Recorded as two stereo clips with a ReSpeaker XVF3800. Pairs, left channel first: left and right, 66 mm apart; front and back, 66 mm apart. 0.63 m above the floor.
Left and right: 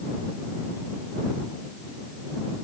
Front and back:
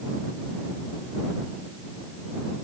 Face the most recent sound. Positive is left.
No sound to turn to.